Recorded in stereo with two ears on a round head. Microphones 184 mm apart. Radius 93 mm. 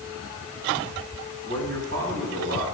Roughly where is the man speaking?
Right.